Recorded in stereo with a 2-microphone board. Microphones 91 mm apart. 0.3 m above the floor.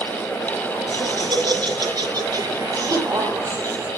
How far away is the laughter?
About 3 m.